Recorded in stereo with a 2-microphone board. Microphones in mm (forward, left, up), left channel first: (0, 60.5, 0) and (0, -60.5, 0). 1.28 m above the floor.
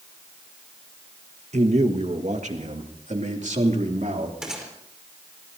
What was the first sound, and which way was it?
A man speaking, 70° right (ahead or behind).